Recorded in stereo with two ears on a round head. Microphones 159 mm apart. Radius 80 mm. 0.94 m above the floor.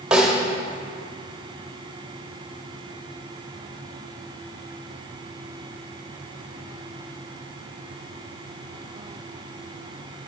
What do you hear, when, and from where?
0.1 s a snare drum: 5° right (ahead or behind), 1.4 m